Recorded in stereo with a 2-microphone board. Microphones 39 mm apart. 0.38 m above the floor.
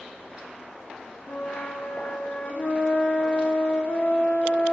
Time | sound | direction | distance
1.3 | a flute | 80° left | 0.9 m